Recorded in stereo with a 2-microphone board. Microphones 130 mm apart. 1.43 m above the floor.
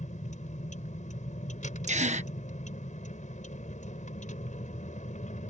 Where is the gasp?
65° right (ahead or behind).